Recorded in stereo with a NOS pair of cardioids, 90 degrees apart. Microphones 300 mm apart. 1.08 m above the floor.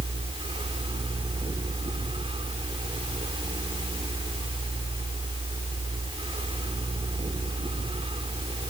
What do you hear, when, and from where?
0.0 s a fan: 20° right